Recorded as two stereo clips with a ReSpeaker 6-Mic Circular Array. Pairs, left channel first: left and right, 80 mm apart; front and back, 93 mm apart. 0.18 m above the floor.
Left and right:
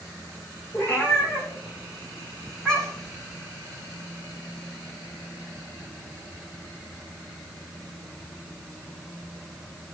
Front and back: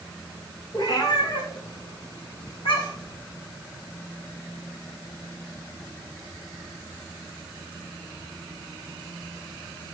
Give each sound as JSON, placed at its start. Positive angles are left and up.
{"t": 0.7, "sound": "a cat meowing", "azimuth_deg": 35, "distance_m": 4.5}